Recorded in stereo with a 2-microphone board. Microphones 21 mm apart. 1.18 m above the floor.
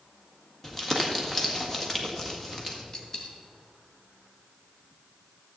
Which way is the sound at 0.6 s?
10° left (ahead or behind).